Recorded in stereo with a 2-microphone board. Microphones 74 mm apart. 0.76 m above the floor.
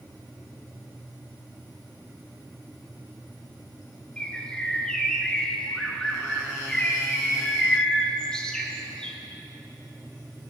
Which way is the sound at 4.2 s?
10° left (ahead or behind).